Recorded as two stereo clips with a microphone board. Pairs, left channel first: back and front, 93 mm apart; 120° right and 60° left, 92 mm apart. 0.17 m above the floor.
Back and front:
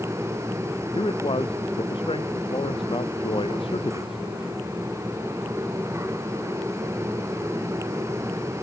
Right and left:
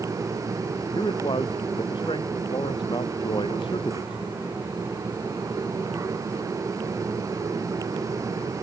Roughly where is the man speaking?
Behind right.